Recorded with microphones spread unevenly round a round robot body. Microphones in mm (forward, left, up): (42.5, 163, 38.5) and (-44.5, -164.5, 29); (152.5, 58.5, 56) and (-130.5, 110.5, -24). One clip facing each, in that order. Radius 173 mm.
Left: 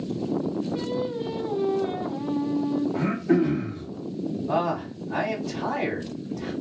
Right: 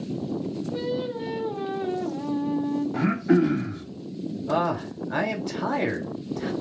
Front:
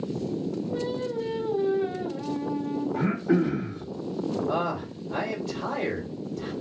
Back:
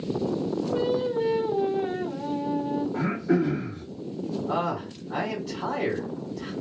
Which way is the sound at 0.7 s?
135° right.